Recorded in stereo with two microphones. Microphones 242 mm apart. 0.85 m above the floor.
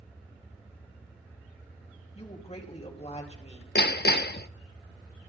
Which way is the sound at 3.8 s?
45° left (ahead or behind).